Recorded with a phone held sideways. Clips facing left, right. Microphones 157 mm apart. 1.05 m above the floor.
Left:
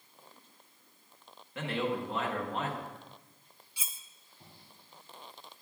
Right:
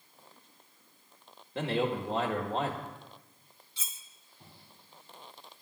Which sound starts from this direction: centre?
Cutlery clinking, at 3.8 s.